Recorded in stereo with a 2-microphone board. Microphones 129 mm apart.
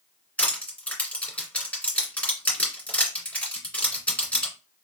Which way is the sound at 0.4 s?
10° left (ahead or behind).